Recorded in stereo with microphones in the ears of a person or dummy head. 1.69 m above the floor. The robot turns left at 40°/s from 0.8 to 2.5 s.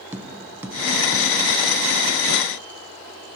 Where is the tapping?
10° right (ahead or behind), 1.0 m; by 1.3 s 10° left (ahead or behind), 1.0 m.